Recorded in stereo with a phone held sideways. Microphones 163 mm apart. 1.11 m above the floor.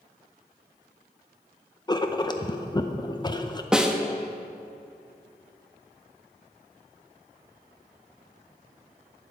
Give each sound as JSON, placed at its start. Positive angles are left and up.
{"t": 1.9, "sound": "writing", "side_deg": 25, "distance_m": 0.6}
{"t": 3.7, "sound": "a snare drum", "side_deg": -5, "distance_m": 0.8}